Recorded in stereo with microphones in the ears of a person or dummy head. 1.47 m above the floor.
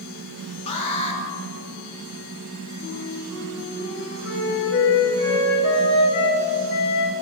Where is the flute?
75° left (ahead or behind), 4.5 m.